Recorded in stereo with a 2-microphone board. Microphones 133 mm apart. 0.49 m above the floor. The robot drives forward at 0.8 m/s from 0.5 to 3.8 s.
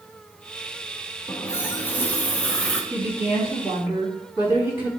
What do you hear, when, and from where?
1.3 s a running tap: 20° left (ahead or behind), 0.7 m; by 2.8 s 10° left (ahead or behind), 1.8 m
2.9 s a woman speaking: 20° right (ahead or behind), 3.5 m; by 4.9 s 15° right (ahead or behind), 4 m